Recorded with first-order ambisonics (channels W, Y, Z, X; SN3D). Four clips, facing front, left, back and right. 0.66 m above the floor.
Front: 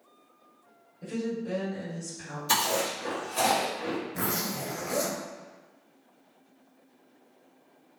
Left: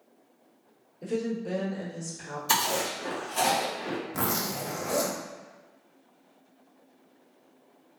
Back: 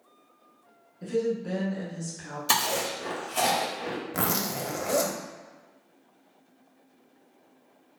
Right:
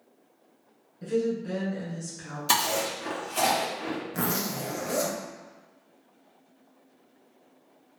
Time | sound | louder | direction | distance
1.0 | a woman speaking | right 3 dB, back 5 dB | 135° right | 1.6 m
2.5 | chewing | right 1 dB, even | 130° right | 1.2 m
4.1 | a zipper | even, back 2 dB | straight behind | 0.7 m